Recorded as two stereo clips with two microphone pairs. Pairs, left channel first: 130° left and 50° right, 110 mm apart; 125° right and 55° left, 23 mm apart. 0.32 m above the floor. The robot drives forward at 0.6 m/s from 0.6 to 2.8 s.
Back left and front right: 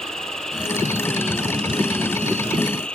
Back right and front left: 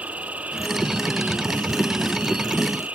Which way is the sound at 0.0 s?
45° left.